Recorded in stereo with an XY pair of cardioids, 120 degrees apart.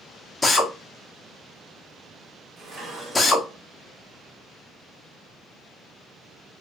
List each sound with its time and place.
0.4 s a drill: 20° left, 0.9 m
2.6 s dishes clattering: 35° right, 1.7 m